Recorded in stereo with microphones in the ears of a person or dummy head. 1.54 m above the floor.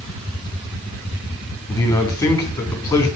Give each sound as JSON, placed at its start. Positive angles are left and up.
{"t": 1.7, "sound": "a man speaking", "side_deg": 10, "distance_m": 3.5}